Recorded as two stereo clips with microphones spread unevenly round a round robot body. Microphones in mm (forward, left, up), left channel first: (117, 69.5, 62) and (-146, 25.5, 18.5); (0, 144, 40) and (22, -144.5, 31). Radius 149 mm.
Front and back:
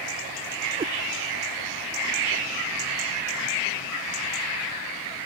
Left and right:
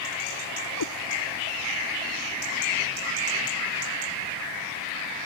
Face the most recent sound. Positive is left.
turn(degrees=120)